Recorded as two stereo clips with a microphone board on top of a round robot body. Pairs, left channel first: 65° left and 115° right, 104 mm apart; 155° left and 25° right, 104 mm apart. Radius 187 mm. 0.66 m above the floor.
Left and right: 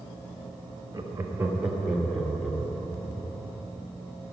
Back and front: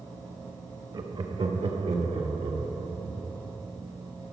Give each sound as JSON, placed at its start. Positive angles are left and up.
{"t": 0.9, "sound": "laughter", "azimuth_deg": -55, "distance_m": 1.3}